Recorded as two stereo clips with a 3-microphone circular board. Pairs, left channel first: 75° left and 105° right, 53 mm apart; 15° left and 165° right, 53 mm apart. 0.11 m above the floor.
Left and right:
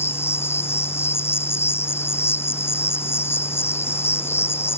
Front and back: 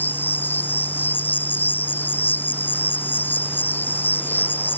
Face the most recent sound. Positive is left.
turn(degrees=55)